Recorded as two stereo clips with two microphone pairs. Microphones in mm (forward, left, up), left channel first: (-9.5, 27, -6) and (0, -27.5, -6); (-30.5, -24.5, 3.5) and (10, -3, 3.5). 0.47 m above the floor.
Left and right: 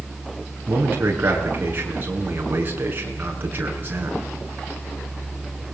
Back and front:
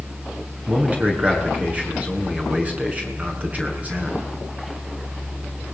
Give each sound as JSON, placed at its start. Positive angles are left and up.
{"t": 0.7, "sound": "a man speaking", "azimuth_deg": -30, "distance_m": 6.0}